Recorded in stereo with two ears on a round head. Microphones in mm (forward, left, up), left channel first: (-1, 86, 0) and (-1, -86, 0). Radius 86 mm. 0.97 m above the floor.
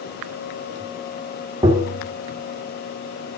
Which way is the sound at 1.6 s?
25° right (ahead or behind).